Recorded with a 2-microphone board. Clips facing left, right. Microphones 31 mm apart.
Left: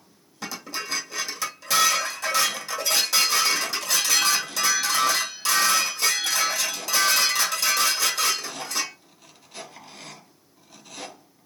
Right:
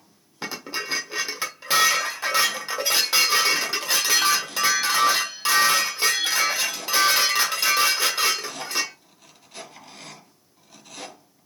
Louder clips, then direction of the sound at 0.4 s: Right 2 dB; 35° right (ahead or behind).